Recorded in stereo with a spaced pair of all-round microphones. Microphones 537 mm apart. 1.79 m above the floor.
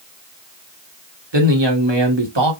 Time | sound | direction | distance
1.3 | a man speaking | 55° right (ahead or behind) | 1.5 m